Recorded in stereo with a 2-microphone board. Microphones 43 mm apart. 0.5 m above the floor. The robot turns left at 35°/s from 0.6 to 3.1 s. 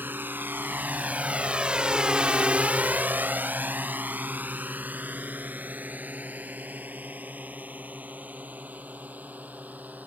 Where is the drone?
55° right (ahead or behind); by 10.1 s 40° right (ahead or behind).